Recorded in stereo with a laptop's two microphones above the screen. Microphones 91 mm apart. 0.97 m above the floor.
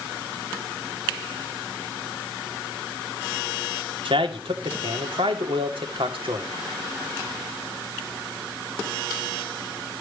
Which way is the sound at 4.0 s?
70° right (ahead or behind).